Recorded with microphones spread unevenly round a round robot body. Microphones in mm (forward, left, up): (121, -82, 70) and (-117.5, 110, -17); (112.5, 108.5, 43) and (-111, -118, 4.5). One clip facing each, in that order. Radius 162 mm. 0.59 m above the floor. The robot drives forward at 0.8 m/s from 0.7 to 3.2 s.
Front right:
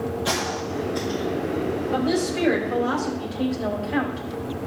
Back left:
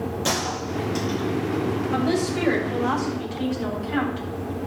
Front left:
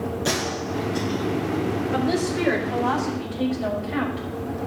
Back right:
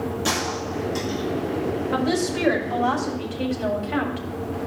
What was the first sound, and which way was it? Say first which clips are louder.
A gunshot: even, front left 1 dB; 150° left.